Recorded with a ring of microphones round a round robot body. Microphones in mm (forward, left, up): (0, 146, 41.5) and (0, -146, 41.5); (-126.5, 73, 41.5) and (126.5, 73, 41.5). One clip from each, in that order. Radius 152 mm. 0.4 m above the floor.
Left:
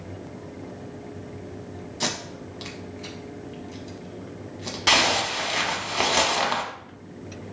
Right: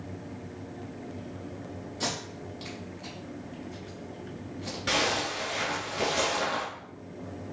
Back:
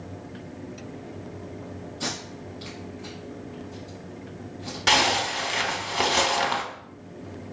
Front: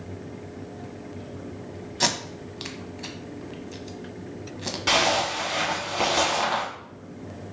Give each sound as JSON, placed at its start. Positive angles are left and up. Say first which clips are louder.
{"t": 2.0, "sound": "tape being pulled", "louder": "left 5 dB, front 7 dB", "azimuth_deg": 15, "distance_m": 0.8}
{"t": 4.9, "sound": "a zipper", "louder": "left 8 dB, back 1 dB", "azimuth_deg": 125, "distance_m": 0.9}